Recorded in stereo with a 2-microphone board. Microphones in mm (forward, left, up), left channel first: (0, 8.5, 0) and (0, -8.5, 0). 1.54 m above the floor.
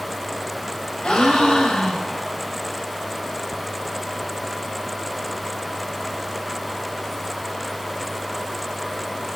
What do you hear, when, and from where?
1.0 s a gasp: 80° left, 4.5 m